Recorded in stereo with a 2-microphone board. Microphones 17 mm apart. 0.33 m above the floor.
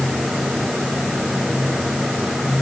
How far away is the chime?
No chime in this recording.